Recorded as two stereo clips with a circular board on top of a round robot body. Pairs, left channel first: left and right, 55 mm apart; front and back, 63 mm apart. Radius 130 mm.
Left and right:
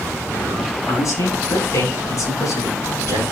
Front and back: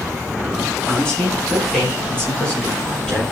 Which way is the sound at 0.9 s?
75° left.